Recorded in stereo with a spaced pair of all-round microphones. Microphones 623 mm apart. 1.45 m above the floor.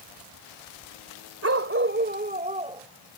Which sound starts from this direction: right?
A dog barking, at 1.4 s.